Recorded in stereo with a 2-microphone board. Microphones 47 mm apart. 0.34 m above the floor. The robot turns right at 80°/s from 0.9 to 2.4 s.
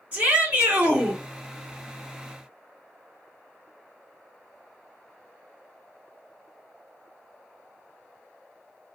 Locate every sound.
0.1 s a shout: 25° right (ahead or behind), 1.6 m; by 1.2 s 20° right (ahead or behind), 1.6 m